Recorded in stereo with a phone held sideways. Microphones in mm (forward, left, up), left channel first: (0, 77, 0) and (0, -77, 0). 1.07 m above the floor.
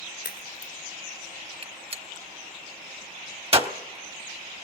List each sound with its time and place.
0.2 s a crack: 65° left (ahead or behind), 2 m
1.6 s a gunshot: 35° right (ahead or behind), 1.1 m